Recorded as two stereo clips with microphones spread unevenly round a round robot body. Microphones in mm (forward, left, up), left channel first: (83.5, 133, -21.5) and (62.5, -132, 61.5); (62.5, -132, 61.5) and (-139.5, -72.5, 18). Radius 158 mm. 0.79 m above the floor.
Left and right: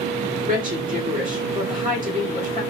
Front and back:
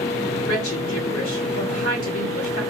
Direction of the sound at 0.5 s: 30° right.